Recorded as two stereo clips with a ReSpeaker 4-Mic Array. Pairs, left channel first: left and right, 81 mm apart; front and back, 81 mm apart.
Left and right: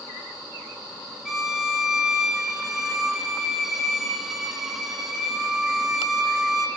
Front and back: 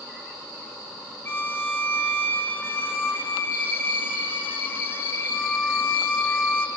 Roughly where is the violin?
Ahead.